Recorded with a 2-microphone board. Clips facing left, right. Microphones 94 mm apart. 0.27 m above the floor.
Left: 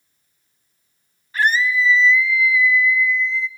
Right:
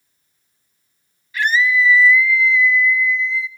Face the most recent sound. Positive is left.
turn(degrees=-5)  # may be behind; listen again after turning